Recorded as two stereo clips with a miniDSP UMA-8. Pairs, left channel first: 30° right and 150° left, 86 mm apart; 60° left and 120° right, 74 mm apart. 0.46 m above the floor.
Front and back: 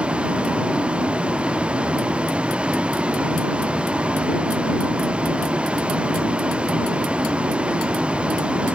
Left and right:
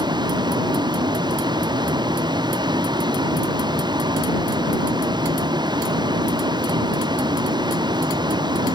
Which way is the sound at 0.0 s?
130° right.